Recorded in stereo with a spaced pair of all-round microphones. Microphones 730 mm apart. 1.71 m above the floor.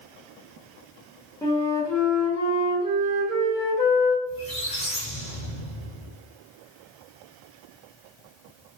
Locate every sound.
1.4 s a flute: 5° left (ahead or behind), 0.7 m
4.3 s a squeak: 10° left (ahead or behind), 0.9 m